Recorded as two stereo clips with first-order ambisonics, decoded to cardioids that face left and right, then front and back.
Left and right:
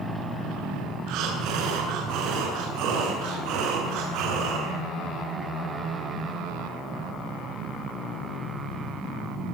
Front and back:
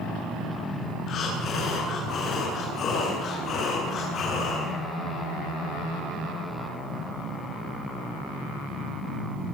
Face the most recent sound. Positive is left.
turn(degrees=-60)